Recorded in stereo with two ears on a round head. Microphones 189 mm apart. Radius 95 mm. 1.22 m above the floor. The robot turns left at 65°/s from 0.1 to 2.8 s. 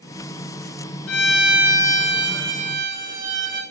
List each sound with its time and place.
1.1 s a violin: 95° left, 6 m; by 3.6 s 20° right, 6 m